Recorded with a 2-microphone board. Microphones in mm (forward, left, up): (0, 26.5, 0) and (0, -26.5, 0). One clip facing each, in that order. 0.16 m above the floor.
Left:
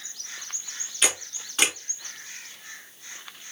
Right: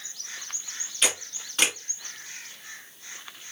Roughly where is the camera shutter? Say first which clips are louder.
Left 1 dB; centre.